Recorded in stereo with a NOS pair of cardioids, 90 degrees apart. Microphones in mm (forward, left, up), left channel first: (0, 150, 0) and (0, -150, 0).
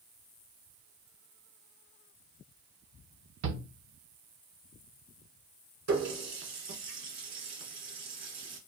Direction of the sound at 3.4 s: 65° right.